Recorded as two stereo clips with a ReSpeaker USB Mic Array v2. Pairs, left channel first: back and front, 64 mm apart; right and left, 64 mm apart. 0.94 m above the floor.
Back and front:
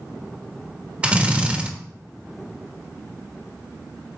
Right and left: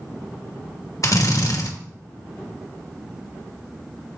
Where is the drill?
70° right, 1.0 m.